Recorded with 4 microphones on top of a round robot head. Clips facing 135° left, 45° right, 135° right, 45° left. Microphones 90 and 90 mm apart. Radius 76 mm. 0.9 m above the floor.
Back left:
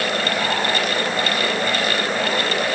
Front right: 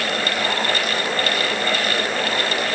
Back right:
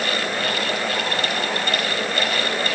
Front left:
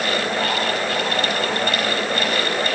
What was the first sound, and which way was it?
Only background noise.